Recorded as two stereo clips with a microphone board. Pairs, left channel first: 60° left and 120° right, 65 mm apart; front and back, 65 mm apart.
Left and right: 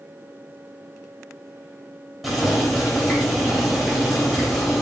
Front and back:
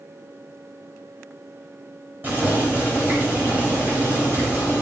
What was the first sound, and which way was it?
Boiling, 155° left.